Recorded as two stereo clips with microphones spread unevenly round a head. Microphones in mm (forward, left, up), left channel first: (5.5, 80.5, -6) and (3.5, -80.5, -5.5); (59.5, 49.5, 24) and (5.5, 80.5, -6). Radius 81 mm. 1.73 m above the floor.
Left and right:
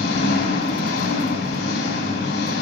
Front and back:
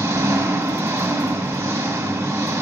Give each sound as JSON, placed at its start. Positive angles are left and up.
{"t": 0.0, "sound": "an engine running", "azimuth_deg": 115, "distance_m": 3.0}